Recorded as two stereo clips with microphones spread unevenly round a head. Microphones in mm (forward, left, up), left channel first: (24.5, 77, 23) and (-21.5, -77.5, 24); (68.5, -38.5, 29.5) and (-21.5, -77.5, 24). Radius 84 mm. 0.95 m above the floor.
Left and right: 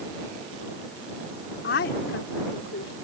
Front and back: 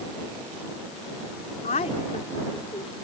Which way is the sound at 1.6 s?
50° left.